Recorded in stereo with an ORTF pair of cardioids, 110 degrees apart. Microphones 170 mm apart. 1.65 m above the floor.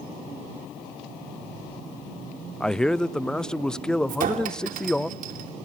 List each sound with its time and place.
2.6 s a man speaking: 5° left, 0.7 m
4.1 s a clink: 55° right, 3 m